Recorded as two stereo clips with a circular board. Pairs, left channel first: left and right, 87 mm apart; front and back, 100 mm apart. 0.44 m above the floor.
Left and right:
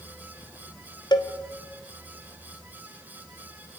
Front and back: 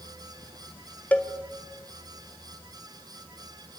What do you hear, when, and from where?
1.1 s a cowbell: 75° left, 2 m